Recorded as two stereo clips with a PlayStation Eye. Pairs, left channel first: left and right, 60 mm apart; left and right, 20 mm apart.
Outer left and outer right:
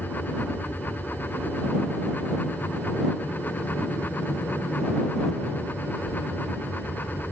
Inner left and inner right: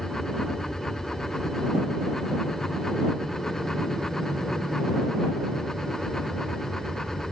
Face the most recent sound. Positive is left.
turn(degrees=55)  # may be behind; listen again after turning